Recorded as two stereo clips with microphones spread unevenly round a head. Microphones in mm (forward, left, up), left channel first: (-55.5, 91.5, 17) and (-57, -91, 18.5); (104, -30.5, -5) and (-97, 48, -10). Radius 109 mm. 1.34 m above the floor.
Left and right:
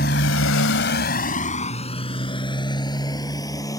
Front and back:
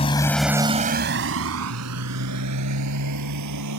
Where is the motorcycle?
40° left; by 3.8 s 160° left.